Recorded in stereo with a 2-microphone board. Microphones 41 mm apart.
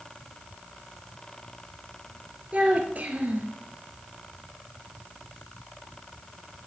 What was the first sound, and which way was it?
A child speaking, 40° right (ahead or behind).